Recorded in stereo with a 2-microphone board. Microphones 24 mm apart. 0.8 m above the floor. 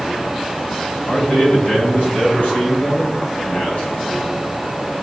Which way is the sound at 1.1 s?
85° left.